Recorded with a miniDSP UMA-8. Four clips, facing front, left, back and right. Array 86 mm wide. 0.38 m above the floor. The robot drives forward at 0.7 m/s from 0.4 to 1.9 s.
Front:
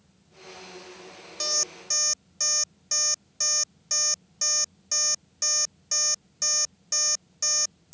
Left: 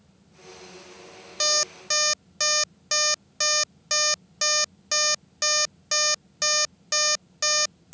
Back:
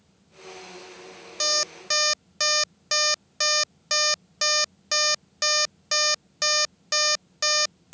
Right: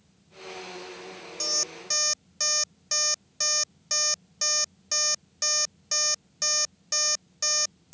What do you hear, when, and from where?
1.4 s an alarm clock: 120° left; by 8.0 s 145° left